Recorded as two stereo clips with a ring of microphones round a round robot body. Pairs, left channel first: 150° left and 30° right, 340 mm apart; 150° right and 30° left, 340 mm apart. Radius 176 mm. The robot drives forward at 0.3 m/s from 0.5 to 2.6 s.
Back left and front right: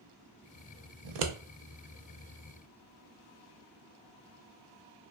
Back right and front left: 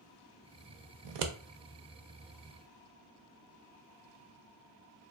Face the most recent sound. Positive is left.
turn(degrees=15)